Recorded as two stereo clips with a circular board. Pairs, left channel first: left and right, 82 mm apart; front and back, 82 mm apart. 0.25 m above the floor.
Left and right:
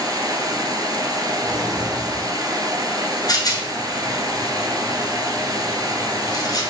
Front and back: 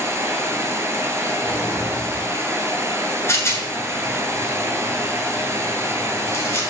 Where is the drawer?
115° right, 1.2 m.